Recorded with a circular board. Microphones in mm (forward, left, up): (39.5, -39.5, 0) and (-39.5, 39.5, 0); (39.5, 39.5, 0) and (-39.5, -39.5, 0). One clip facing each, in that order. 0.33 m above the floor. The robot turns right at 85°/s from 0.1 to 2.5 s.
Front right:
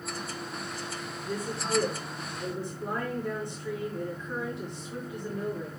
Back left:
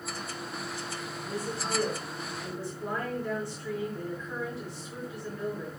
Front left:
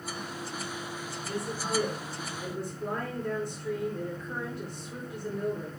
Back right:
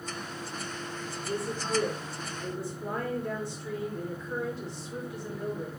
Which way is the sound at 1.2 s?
85° right.